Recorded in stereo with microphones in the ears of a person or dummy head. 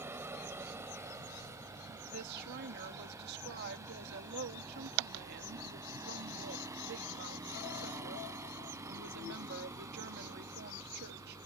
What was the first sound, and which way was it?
A vehicle, 10° right (ahead or behind).